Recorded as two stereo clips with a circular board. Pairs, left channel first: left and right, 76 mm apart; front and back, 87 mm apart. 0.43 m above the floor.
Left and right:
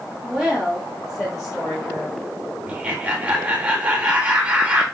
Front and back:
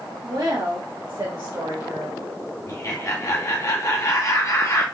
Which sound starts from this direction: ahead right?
Laughter, at 2.7 s.